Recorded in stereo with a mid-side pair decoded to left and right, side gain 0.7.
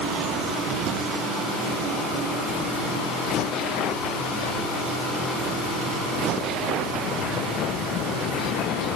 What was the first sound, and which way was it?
Only background noise.